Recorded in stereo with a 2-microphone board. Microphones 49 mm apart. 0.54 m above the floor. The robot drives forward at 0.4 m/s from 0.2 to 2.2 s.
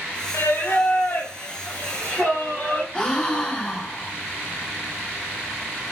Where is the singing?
60° left (ahead or behind), 0.6 m; by 2.8 s 25° left (ahead or behind), 1.2 m.